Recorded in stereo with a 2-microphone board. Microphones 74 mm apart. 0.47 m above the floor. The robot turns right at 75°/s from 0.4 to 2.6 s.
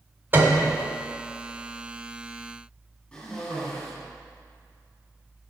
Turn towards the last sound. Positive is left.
turn(degrees=15)  # may be behind; listen again after turning